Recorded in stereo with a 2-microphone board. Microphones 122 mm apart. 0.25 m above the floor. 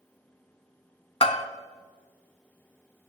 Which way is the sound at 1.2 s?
55° left (ahead or behind).